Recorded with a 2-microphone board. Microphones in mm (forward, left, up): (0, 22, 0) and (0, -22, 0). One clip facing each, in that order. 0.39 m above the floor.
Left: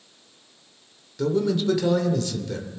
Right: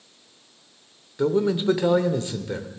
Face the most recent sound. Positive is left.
turn(degrees=-25)  # may be behind; listen again after turning